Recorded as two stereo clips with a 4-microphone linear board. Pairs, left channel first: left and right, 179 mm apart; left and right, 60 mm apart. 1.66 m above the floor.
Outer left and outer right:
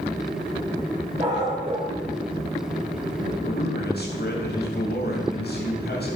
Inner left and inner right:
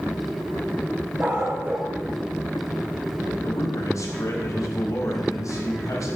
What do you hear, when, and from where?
1.2 s a dog barking: 40° right (ahead or behind), 3.5 m
3.4 s a man speaking: 60° left (ahead or behind), 3 m